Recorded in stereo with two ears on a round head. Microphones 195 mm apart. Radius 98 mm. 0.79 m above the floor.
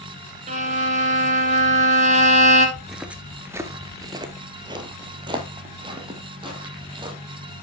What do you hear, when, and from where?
0.5 s a violin: 35° right (ahead or behind), 1.6 m
2.8 s footsteps: centre (ahead or behind), 0.7 m; by 7.2 s 25° right (ahead or behind), 2.5 m